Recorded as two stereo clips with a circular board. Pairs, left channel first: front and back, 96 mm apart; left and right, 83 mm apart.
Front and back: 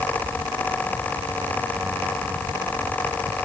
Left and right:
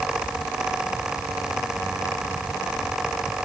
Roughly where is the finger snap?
No finger snap in this recording.